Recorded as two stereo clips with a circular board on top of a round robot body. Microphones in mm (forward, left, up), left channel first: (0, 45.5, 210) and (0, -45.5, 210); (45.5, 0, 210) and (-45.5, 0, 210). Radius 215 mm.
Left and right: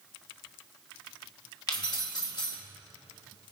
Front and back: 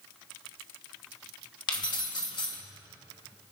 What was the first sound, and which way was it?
Keys jangling, 45° left.